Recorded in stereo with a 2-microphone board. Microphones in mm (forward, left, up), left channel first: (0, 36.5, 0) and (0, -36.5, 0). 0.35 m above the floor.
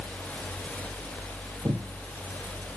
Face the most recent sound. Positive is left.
turn(degrees=-55)  # may be behind; listen again after turning